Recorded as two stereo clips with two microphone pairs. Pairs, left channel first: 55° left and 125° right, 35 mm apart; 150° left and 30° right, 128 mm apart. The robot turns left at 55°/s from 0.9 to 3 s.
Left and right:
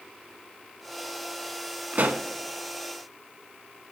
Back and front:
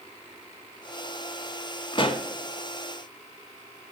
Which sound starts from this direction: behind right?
A pop, at 1.9 s.